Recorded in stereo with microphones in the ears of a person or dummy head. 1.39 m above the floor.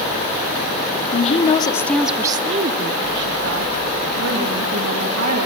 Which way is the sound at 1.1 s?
40° left (ahead or behind).